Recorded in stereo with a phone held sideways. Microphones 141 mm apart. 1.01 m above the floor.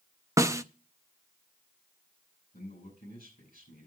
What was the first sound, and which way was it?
A snare drum, 20° right (ahead or behind).